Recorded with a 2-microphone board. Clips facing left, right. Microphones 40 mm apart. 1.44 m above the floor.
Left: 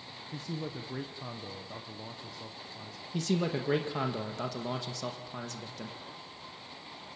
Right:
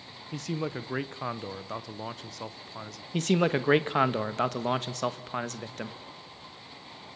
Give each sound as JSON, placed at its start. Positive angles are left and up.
{"t": 0.3, "sound": "a man speaking", "side_deg": -85, "distance_m": 0.9}
{"t": 3.1, "sound": "a man speaking", "side_deg": -55, "distance_m": 1.3}